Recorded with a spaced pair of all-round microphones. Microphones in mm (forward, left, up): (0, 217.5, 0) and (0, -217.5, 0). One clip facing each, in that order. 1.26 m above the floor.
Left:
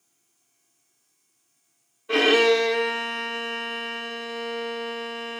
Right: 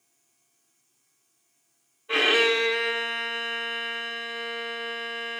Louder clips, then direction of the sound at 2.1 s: Left 6 dB; 60° left (ahead or behind).